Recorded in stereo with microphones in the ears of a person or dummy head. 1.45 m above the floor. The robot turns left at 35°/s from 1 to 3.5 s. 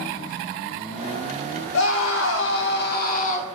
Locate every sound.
1.7 s a scream: 100° left, 1.0 m; by 3.6 s 35° left, 1.0 m